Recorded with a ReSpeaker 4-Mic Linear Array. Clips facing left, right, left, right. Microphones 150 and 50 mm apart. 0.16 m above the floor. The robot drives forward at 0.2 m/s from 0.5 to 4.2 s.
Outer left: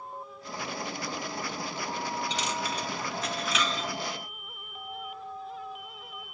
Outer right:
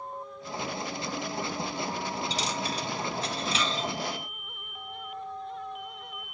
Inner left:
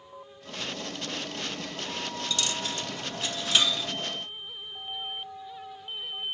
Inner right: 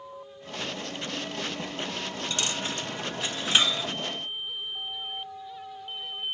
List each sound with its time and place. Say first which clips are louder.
2.3 s a dropped coin: even, inner right 1 dB; 35° right (ahead or behind), 0.6 m; by 3.9 s 30° right (ahead or behind), 0.8 m